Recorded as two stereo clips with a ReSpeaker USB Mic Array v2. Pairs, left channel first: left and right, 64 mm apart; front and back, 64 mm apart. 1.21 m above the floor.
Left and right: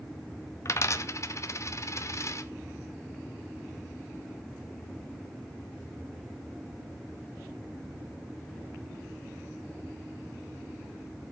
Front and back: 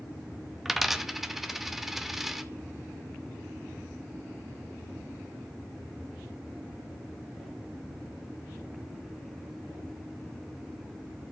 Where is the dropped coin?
95° left, 0.7 m.